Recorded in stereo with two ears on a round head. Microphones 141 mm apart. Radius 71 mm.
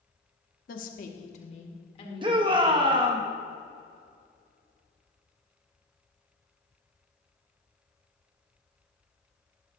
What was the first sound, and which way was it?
A woman speaking, 60° left (ahead or behind).